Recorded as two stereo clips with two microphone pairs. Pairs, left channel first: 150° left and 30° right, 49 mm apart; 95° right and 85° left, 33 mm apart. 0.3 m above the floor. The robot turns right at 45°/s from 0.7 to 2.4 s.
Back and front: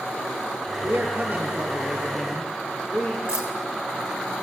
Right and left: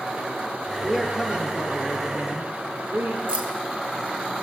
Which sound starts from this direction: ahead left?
Keys jangling, at 3.3 s.